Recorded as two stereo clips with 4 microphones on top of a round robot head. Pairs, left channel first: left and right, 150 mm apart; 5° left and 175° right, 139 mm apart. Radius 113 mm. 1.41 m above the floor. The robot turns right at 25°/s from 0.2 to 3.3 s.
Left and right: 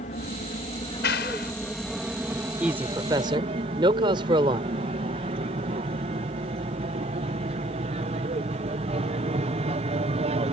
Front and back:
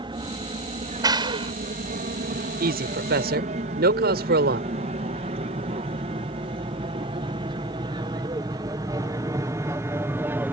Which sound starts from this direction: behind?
A man speaking, at 2.6 s.